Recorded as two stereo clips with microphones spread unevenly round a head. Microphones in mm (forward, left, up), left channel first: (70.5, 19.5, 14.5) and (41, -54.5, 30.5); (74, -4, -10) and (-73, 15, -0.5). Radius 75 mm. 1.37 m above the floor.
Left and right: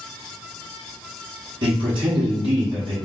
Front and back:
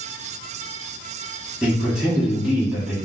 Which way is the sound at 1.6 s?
105° right.